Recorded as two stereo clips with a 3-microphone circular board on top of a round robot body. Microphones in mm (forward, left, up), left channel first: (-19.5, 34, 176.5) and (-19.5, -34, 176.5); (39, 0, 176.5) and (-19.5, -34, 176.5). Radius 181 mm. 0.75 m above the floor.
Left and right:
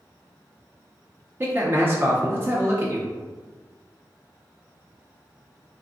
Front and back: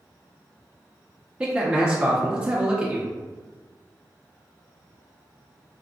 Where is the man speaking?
90° right, 0.8 m.